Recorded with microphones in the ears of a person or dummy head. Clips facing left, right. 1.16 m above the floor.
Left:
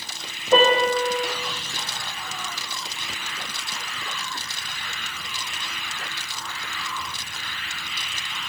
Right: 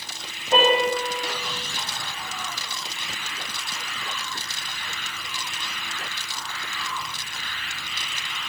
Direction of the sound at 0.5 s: 75° left (ahead or behind).